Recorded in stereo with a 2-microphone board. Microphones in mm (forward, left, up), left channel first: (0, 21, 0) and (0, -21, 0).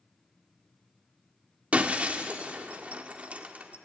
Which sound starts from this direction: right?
Breaking glass, at 1.7 s.